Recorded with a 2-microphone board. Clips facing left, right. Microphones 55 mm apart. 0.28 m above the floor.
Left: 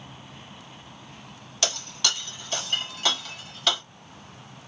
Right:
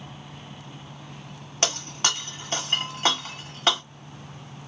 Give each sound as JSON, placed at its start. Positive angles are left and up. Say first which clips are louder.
{"t": 1.6, "sound": "breaking glass", "louder": "right 2 dB", "side_deg": -35, "distance_m": 1.3}